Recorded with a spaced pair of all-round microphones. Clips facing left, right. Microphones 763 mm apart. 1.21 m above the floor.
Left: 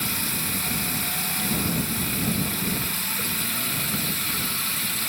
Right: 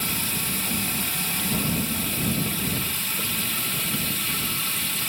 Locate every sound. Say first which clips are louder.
0.0 s running water: even; 60° right (ahead or behind)